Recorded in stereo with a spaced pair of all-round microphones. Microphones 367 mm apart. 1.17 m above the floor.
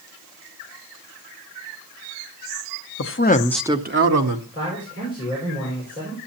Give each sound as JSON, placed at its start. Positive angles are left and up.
{"t": 3.0, "sound": "a man speaking", "side_deg": 40, "distance_m": 0.8}
{"t": 4.5, "sound": "a man speaking", "side_deg": 35, "distance_m": 5.0}